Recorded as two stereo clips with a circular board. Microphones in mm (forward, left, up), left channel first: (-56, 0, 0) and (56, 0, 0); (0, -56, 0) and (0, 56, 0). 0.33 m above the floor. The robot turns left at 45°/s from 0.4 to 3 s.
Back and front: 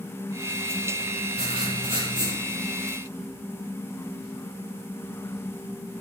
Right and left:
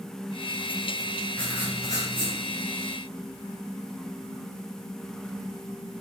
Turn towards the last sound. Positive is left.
turn(degrees=-80)